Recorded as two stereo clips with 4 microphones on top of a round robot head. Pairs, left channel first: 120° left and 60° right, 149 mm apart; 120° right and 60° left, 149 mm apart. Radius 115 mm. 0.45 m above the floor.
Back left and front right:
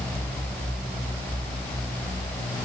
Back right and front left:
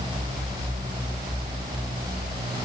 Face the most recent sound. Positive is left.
No sound to turn to.